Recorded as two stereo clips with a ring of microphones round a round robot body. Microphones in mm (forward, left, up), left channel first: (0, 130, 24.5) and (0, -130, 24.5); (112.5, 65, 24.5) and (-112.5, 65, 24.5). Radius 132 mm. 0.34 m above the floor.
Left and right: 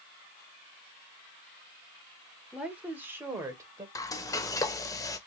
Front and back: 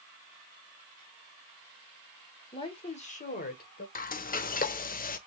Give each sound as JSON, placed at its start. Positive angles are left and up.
{"t": 2.5, "sound": "a woman speaking", "azimuth_deg": -10, "distance_m": 1.2}
{"t": 4.0, "sound": "frying", "azimuth_deg": 20, "distance_m": 0.6}